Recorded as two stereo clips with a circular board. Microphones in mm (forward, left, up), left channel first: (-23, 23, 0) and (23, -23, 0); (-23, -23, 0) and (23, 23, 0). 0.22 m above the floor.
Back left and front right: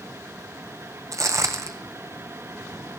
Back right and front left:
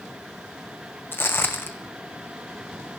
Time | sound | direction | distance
1.1 | footsteps | 80° right | 0.7 m